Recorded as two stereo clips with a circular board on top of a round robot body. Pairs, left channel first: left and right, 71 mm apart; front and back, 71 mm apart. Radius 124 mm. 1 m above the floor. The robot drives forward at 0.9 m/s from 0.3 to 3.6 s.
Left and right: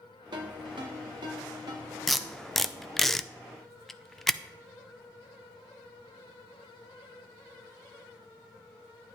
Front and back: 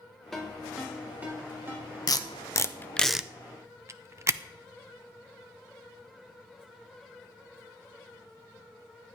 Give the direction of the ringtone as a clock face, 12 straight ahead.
3 o'clock.